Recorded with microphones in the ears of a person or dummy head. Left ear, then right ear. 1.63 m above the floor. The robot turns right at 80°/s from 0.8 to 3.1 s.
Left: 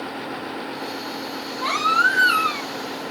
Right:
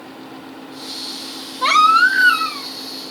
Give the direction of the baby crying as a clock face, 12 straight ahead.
2 o'clock.